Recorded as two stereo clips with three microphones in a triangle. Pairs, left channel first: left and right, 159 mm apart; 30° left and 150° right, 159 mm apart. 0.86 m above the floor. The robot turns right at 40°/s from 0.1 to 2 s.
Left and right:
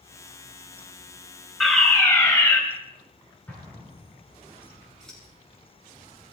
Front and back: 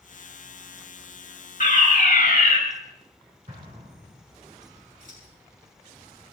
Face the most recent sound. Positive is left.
turn(degrees=175)